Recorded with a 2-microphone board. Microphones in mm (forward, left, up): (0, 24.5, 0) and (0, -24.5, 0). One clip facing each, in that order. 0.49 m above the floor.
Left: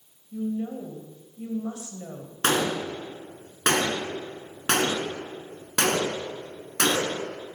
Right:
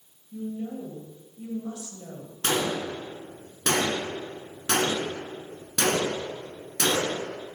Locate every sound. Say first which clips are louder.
0.3 s a woman speaking: left 4 dB; 35° left (ahead or behind), 2.0 m
2.4 s a gunshot: left 2 dB; 55° left (ahead or behind), 2 m